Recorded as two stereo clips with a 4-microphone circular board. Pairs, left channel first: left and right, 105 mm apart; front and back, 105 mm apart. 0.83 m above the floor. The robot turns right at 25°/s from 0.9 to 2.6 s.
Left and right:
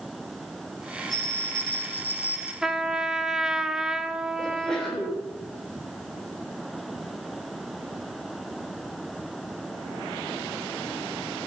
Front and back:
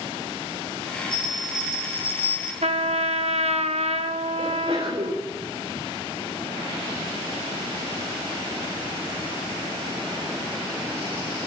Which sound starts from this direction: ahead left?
A bell, at 1.1 s.